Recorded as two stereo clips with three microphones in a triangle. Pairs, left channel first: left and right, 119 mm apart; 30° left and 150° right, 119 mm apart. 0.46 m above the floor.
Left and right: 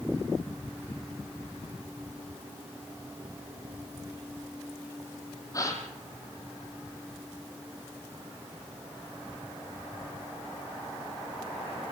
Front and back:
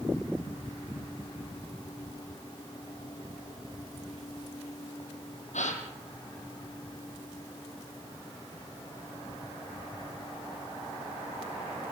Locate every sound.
5.5 s a gasp: 30° left, 3 m